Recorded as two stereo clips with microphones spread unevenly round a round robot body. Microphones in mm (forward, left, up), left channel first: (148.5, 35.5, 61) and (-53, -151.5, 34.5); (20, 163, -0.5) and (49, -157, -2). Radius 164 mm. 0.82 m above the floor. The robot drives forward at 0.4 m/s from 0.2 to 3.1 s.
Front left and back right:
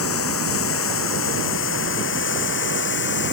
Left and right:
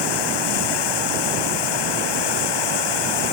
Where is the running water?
95° left; by 3.3 s 100° left.